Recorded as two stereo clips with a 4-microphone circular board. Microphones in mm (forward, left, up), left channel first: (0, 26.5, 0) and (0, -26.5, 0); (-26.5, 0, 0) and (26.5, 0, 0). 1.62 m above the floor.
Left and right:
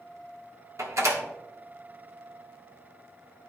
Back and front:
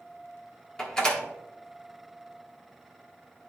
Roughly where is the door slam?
Right.